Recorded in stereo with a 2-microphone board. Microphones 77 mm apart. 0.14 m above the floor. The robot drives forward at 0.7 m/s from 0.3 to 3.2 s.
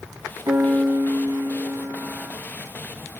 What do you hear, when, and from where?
0.5 s a piano: 55° right (ahead or behind), 1.2 m; by 2.4 s 45° right (ahead or behind), 1.4 m